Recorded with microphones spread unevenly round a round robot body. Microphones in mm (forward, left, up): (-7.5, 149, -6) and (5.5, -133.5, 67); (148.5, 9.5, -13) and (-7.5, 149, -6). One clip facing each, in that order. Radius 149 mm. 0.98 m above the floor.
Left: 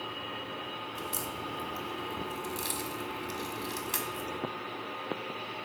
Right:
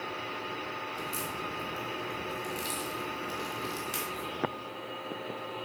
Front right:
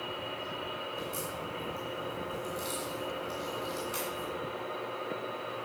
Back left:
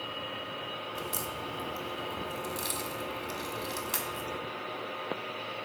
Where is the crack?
170° left, 1.3 m.